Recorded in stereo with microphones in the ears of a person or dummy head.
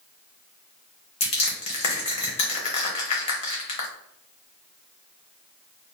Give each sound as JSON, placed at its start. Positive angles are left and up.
{"t": 1.2, "sound": "crushing", "side_deg": 35, "distance_m": 0.7}